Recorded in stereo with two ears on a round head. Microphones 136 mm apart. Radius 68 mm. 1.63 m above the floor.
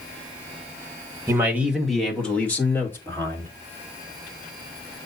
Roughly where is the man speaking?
Centre.